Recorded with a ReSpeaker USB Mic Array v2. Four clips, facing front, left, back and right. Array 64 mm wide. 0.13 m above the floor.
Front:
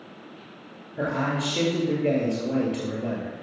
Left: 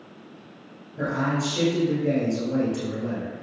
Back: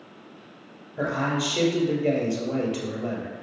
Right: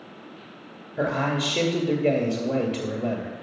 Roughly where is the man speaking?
Right.